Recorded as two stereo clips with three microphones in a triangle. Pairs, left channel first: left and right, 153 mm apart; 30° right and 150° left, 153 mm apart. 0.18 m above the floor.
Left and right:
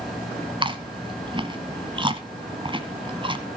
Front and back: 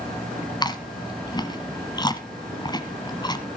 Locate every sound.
0.6 s chewing: 70° right, 1.2 m